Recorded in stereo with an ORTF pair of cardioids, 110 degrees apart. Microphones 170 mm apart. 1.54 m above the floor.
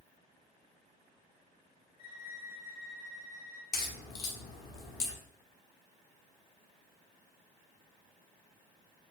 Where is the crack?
65° left, 1.1 m.